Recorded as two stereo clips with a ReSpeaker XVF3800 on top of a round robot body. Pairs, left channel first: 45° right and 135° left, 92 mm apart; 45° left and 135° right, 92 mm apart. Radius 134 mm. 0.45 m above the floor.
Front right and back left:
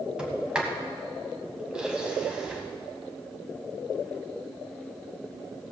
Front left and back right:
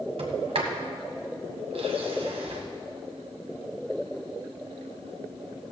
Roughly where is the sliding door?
Behind right.